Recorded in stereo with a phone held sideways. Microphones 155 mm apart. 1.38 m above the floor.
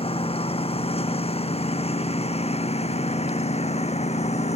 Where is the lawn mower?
40° left (ahead or behind); by 4.6 s 45° left (ahead or behind).